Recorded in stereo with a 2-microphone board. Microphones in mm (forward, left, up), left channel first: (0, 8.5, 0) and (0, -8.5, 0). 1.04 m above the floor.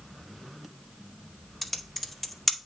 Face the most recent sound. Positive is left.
turn(degrees=20)  # may be behind; listen again after turning